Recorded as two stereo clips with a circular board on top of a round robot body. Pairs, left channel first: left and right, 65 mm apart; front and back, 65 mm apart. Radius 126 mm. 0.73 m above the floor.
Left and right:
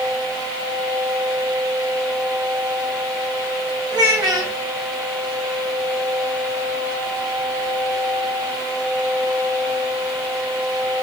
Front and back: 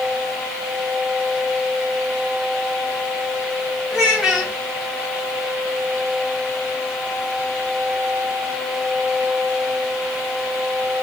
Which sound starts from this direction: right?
A child speaking, at 3.9 s.